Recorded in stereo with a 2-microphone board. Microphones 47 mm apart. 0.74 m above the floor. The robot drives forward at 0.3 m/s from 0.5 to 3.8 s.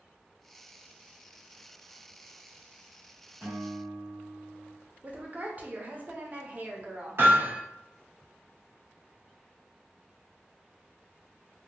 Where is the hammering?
55° right (ahead or behind), 1.5 m.